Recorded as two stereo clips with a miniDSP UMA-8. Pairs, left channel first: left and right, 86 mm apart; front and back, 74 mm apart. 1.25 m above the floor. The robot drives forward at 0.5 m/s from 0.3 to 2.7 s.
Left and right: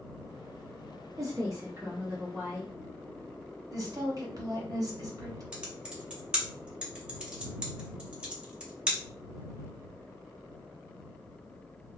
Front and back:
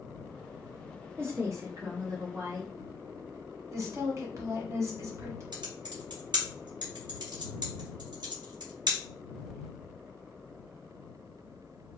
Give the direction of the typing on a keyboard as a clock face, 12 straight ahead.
6 o'clock.